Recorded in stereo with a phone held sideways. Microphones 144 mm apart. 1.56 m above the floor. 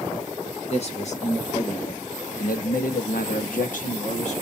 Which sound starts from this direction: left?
A man speaking, at 0.7 s.